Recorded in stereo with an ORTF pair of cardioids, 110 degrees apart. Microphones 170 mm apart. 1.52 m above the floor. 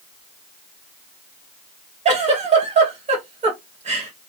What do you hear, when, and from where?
2.0 s a giggle: 40° right, 2 m